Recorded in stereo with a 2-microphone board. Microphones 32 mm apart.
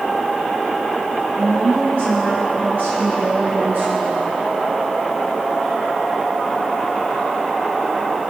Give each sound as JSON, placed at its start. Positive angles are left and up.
{"t": 1.4, "sound": "a woman speaking", "side_deg": -75, "distance_m": 5.5}